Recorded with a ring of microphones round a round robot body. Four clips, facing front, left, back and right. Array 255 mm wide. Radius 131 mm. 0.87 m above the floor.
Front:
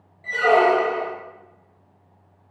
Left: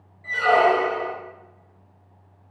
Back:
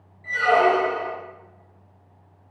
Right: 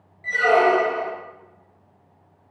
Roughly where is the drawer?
I don't hear a drawer.